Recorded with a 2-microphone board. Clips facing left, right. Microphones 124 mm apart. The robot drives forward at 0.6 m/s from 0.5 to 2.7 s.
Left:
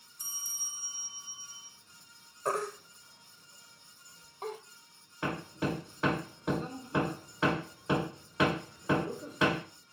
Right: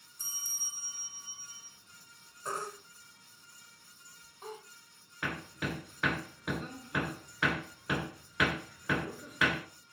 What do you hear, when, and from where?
0.2 s a bell: 15° left (ahead or behind), 2.5 m; by 1.7 s 20° left (ahead or behind), 2 m
2.5 s a baby crying: 65° left (ahead or behind), 1.7 m
5.2 s hammering: 30° left (ahead or behind), 0.8 m